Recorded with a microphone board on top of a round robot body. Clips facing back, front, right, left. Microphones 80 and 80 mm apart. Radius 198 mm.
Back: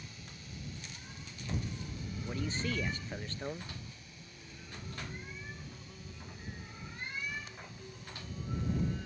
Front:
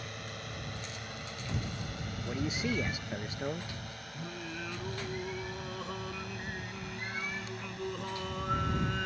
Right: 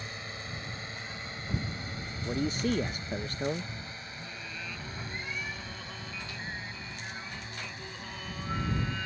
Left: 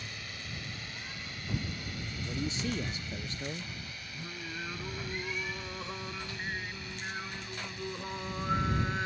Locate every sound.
0.0 s a drone: 30° right
2.2 s a man speaking: 75° right
4.1 s singing: 25° left